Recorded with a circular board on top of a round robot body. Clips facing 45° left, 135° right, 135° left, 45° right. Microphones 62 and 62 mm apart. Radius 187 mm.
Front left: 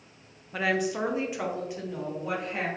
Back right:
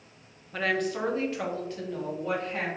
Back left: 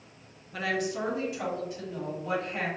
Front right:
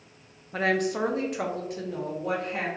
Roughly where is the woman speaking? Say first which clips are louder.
Front left 1 dB, front right 5 dB; ahead right.